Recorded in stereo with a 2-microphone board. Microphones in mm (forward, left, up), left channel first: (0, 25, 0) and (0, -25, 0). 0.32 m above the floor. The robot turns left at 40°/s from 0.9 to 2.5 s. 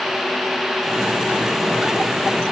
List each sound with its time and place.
Only background noise.